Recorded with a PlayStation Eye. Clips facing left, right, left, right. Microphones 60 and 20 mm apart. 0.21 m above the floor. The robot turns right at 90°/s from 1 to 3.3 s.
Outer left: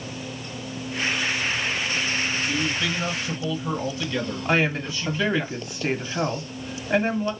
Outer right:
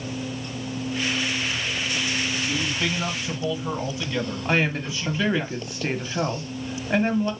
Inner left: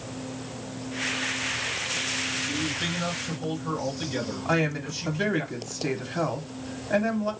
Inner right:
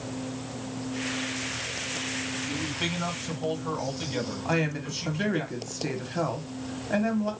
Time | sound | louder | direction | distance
2.5 | a man speaking | outer left 1 dB, inner left 2 dB | 85° right | 1.9 m
4.5 | a woman speaking | outer left 1 dB, inner left 3 dB | centre (ahead or behind) | 1.1 m